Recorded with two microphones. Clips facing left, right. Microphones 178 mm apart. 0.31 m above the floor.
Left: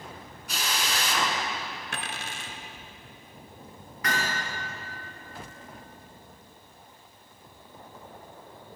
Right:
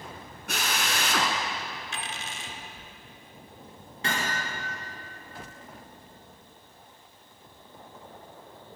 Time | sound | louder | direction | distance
0.5 | a drill | right 1 dB | 65° right (ahead or behind) | 1.7 m
1.9 | a dropped coin | left 1 dB | 70° left (ahead or behind) | 1.0 m
4.0 | hammering | even | 30° right (ahead or behind) | 3.5 m